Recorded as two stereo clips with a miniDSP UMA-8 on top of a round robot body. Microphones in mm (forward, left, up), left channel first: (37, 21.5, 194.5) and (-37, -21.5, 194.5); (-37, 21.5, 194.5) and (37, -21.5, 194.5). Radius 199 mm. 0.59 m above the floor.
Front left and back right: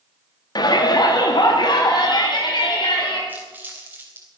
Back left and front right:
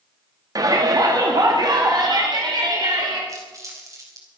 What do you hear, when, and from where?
0.6 s a shout: 10° left, 1.6 m; by 3.2 s 5° left, 3 m
3.3 s crumpling: 80° right, 4 m